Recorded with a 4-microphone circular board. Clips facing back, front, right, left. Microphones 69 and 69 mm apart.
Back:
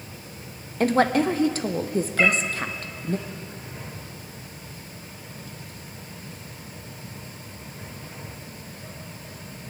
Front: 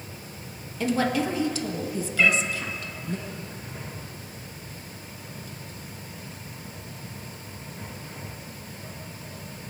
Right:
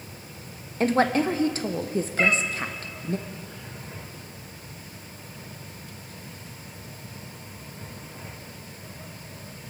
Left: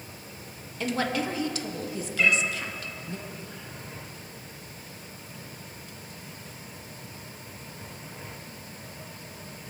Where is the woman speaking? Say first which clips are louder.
Back 5 dB, right 7 dB; 140° right, 0.8 m.